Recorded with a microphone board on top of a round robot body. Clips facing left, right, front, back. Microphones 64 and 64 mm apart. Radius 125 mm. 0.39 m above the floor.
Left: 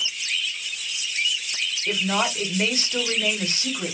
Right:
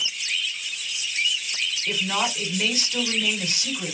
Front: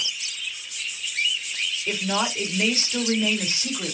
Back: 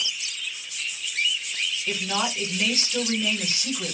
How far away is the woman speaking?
About 1.5 m.